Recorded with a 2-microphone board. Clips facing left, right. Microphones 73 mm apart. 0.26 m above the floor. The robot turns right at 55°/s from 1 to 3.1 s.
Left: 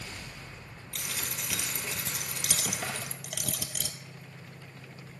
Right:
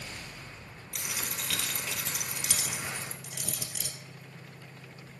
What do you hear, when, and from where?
0.9 s a dropped coin: 15° right, 0.9 m; by 4.0 s 100° left, 0.9 m